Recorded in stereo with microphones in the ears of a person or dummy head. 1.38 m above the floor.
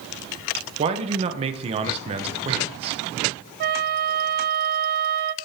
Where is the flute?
45° right (ahead or behind), 0.5 m.